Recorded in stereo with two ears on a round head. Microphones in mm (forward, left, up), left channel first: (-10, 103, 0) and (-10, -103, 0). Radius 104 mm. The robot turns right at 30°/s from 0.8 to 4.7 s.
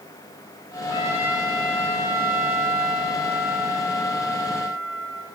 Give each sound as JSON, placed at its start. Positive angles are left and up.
{"t": 0.9, "sound": "a trumpet", "azimuth_deg": 60, "distance_m": 5.5}